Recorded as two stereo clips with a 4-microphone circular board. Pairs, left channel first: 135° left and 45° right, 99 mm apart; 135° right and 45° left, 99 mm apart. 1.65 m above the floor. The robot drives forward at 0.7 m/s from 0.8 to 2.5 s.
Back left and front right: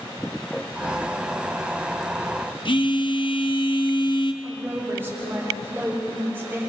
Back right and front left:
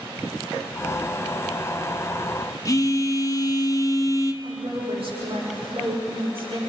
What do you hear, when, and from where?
2.6 s a phone buzzing: 170° left, 1.1 m
4.4 s a woman speaking: 25° left, 8.5 m